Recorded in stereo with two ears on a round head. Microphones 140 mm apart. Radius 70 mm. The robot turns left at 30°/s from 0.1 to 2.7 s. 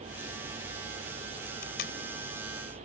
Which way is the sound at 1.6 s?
65° left (ahead or behind).